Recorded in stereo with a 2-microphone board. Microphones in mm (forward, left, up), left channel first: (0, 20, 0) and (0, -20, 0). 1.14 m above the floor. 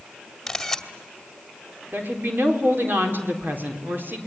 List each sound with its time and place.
0.5 s a camera shutter: 5° left (ahead or behind), 2 m
1.9 s a woman speaking: 55° right (ahead or behind), 4 m